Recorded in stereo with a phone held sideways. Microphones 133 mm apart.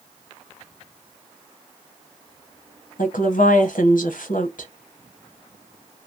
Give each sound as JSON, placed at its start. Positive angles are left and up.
{"t": 3.0, "sound": "a woman speaking", "side_deg": 75, "distance_m": 0.9}